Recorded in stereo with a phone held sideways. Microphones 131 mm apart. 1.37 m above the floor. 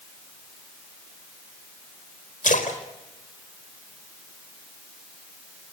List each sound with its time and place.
2.4 s a splash: 85° left, 4.5 m